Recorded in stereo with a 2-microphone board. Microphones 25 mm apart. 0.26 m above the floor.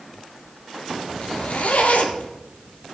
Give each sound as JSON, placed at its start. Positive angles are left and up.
{"t": 1.2, "sound": "a zipper", "side_deg": 75, "distance_m": 1.8}